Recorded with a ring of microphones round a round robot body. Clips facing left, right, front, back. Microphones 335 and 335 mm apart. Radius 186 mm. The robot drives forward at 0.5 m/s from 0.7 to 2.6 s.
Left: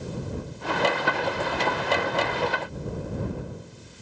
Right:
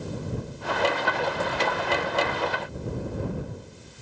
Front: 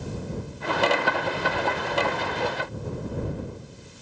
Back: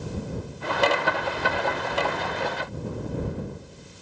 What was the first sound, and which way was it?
Only background noise.